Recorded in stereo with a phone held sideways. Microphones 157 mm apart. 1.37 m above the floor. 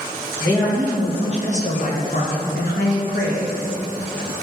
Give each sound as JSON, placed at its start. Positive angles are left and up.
{"t": 0.4, "sound": "a man speaking", "side_deg": 25, "distance_m": 1.8}